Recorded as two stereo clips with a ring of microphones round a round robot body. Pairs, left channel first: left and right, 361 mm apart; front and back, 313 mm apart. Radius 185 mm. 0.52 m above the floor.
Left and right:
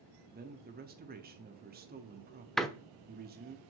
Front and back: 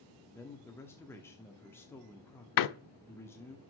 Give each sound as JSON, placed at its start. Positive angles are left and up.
{"t": 0.3, "sound": "a man speaking", "azimuth_deg": -75, "distance_m": 1.0}
{"t": 2.6, "sound": "a door slam", "azimuth_deg": 0, "distance_m": 0.7}